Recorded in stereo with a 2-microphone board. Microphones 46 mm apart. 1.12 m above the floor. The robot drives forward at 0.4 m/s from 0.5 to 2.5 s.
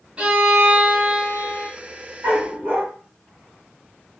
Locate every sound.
0.2 s a violin: 25° right (ahead or behind), 2.0 m; by 1.7 s 20° right (ahead or behind), 2.5 m
2.2 s a dog barking: 35° right (ahead or behind), 2.5 m